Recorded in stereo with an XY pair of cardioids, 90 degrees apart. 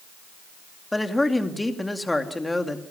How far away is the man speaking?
About 2.5 m.